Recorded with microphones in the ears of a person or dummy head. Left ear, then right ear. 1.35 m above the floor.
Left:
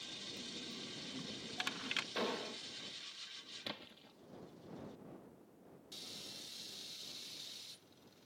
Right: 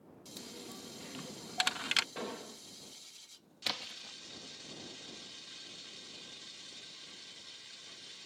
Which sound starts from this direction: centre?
An explosion, at 2.1 s.